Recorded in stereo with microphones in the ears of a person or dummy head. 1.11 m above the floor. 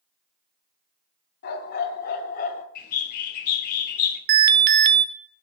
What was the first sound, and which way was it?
A dog barking, 55° left (ahead or behind).